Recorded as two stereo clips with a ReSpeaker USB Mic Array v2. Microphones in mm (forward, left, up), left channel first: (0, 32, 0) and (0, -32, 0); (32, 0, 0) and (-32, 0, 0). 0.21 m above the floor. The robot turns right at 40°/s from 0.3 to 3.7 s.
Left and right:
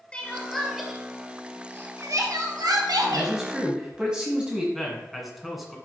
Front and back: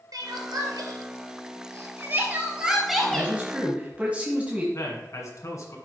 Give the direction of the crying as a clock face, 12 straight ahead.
7 o'clock.